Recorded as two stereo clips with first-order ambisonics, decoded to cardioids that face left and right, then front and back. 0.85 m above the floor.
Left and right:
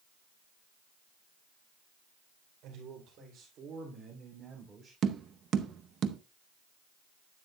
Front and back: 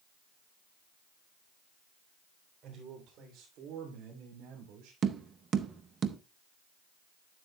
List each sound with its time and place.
2.6 s a man speaking: 125° right, 3 m; by 4.9 s 175° right, 2.5 m
5.0 s tapping: 130° right, 0.6 m